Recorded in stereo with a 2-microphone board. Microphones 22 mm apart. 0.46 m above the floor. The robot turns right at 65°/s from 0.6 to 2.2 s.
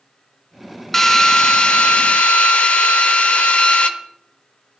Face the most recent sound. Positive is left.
turn(degrees=90)